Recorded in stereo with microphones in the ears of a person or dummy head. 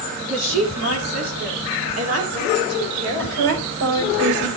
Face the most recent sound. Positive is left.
turn(degrees=-65)  # may be behind; listen again after turning